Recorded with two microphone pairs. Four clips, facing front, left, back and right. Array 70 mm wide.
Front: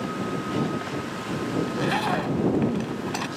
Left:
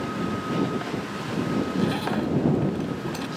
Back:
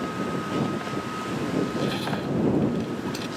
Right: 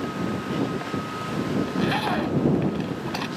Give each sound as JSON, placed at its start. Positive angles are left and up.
{"t": 1.6, "sound": "a zipper", "azimuth_deg": -30}